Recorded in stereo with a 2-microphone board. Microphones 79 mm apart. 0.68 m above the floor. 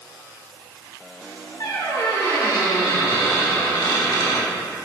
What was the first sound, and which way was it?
A squeak, 60° left (ahead or behind).